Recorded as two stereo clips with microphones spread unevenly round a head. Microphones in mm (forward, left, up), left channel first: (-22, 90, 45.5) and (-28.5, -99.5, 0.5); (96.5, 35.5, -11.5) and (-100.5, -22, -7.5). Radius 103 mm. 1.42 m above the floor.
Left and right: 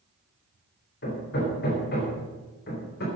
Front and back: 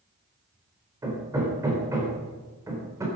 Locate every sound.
1.0 s hammering: 120° left, 4 m